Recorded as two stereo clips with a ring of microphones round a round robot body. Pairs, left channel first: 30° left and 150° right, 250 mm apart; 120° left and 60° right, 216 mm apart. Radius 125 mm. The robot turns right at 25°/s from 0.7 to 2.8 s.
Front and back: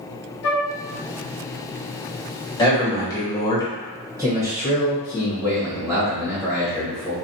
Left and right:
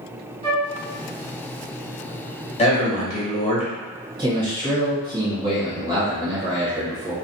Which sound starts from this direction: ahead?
A flute, at 0.4 s.